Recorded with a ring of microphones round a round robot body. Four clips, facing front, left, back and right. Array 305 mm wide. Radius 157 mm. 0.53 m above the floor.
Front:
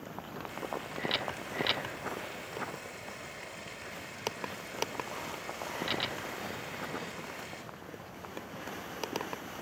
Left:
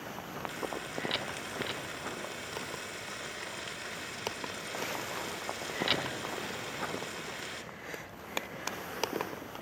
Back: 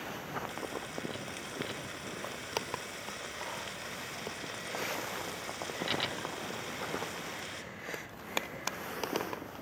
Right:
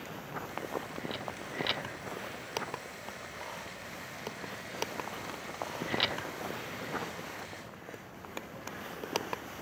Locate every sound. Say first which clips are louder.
0.5 s frying: even, front 1 dB; 125° left, 1.6 m